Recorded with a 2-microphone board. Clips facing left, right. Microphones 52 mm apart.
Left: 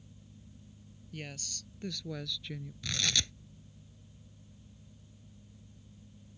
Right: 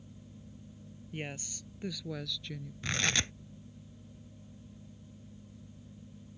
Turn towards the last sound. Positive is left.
turn(degrees=-35)  # may be behind; listen again after turning